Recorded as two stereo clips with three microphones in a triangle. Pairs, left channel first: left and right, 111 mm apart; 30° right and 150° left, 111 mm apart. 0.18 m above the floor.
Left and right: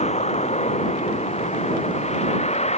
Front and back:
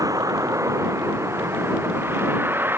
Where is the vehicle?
90° left; by 2.8 s 80° left.